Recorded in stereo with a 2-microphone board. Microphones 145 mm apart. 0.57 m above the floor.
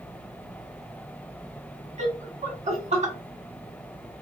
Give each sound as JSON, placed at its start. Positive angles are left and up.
{"t": 2.0, "sound": "laughter", "side_deg": -50, "distance_m": 1.7}